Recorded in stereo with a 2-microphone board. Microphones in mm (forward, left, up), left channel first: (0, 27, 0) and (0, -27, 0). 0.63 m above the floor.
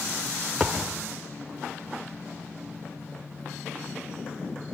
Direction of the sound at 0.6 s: 10° left (ahead or behind).